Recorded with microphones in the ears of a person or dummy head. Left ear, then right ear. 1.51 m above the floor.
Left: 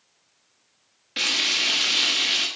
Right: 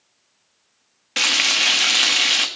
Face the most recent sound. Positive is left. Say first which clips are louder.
# right 5 dB
turn(degrees=-35)  # may be behind; listen again after turning